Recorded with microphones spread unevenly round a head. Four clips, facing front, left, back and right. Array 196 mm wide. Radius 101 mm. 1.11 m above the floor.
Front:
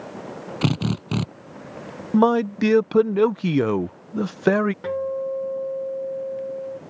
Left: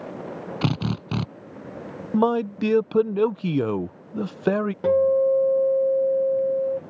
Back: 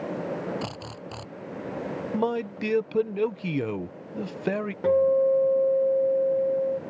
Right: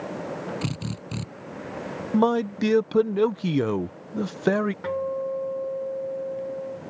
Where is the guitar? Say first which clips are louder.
Left 9 dB, back 6 dB; 120° left.